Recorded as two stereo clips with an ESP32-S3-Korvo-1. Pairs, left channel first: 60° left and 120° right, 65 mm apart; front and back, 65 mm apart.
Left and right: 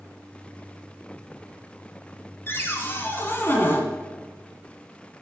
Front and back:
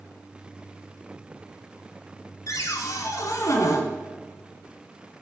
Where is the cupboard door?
10° left, 1.0 m.